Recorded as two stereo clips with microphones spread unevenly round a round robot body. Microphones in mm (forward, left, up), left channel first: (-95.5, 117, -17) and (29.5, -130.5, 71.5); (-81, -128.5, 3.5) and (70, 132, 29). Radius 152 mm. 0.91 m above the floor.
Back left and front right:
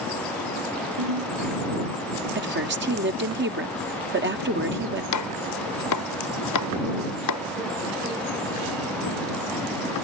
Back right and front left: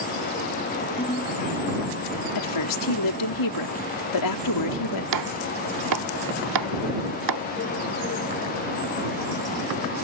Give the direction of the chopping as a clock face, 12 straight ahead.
9 o'clock.